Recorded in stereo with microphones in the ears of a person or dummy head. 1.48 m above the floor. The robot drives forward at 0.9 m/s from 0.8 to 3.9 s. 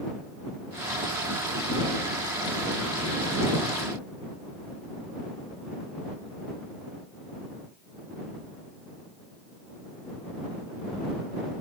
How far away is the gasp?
No gasp in this recording.